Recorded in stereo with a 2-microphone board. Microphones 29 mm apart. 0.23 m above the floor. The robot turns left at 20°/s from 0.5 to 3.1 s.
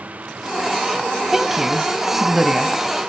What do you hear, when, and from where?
1.3 s a woman speaking: 15° right (ahead or behind), 1.0 m; by 2.7 s 5° right (ahead or behind), 1.0 m